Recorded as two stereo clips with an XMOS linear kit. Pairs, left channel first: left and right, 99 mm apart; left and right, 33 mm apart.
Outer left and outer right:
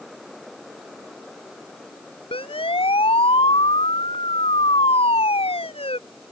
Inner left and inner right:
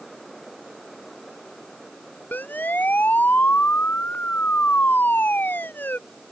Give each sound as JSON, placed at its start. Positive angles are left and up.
{"t": 2.3, "sound": "a siren", "side_deg": 70}